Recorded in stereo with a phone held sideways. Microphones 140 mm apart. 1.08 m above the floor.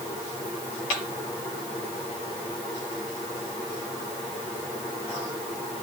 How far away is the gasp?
No gasp in this recording.